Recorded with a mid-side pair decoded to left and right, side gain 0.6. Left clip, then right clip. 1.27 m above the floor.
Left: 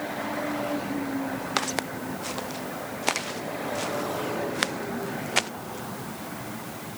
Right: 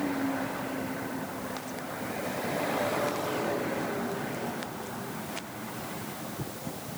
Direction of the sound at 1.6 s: 65° left.